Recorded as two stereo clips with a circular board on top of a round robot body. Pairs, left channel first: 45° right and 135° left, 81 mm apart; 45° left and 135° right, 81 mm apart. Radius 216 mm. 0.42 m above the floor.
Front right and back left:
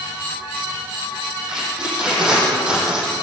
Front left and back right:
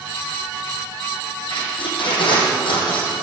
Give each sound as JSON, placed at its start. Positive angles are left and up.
{"t": 1.5, "sound": "tape being pulled", "azimuth_deg": 55, "distance_m": 7.0}